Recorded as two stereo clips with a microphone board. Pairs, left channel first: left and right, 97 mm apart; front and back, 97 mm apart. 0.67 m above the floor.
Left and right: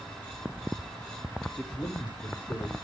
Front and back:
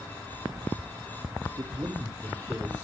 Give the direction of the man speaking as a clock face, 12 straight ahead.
7 o'clock.